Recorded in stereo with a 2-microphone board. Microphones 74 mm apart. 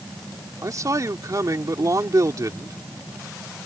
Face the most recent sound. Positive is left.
turn(degrees=-50)  # may be behind; listen again after turning